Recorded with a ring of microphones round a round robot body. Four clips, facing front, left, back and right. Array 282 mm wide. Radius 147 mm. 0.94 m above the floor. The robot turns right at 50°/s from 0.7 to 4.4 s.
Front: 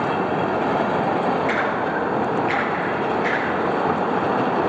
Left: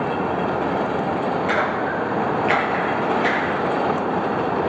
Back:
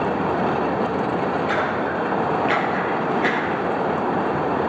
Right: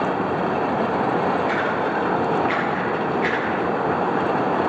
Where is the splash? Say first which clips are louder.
Even, even; 75° left, 8 m; by 3.6 s 175° right, 8 m.